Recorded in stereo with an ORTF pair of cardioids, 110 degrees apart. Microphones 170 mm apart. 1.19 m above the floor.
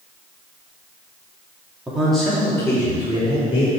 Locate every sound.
1.9 s a man speaking: 5° right, 2.5 m; by 3.7 s 35° left, 3.5 m